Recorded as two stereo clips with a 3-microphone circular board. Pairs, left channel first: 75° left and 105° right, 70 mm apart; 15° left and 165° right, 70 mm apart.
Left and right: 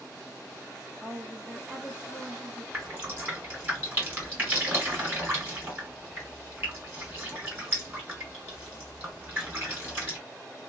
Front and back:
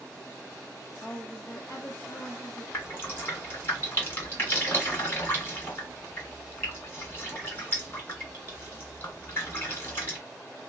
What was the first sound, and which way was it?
A woman speaking, 35° right.